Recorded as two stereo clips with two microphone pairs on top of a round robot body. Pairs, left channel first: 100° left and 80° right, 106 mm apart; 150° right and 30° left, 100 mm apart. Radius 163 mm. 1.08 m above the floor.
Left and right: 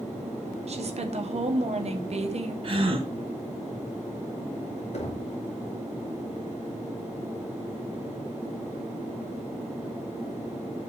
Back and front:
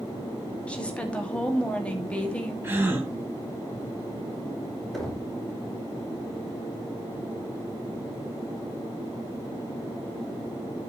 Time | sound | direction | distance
0.7 | a woman speaking | 70° right | 2.5 m
2.6 | a gasp | 40° right | 3 m
4.9 | knocking | 120° left | 3 m